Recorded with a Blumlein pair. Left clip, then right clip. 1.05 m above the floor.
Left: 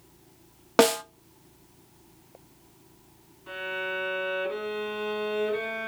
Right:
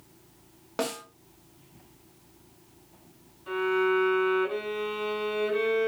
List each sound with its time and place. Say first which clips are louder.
0.8 s a snare drum: left 11 dB; 35° left, 0.7 m
3.5 s a violin: right 6 dB; 5° right, 6 m